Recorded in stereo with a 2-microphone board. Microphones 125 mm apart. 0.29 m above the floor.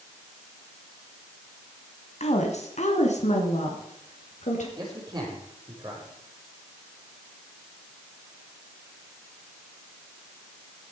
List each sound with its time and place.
2.2 s a woman speaking: 60° left (ahead or behind), 2 m; by 4.7 s 70° left (ahead or behind), 5 m
4.8 s a man speaking: 35° right (ahead or behind), 8 m